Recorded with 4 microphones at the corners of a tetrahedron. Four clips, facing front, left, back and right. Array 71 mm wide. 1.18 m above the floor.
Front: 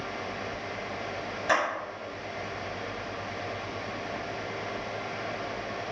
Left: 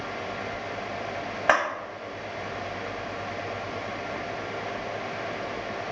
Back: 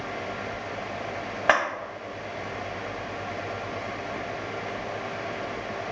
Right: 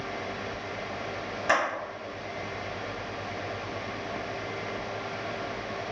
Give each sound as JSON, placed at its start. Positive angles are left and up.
{"t": 1.5, "sound": "a clap", "azimuth_deg": 145, "distance_m": 1.2}